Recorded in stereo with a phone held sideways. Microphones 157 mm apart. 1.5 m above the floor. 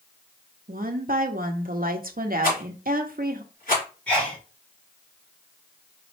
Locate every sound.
0.7 s a woman speaking: 60° right (ahead or behind), 0.8 m
2.4 s a rattle: 60° left (ahead or behind), 3.5 m
4.1 s a sneeze: 5° left (ahead or behind), 1.7 m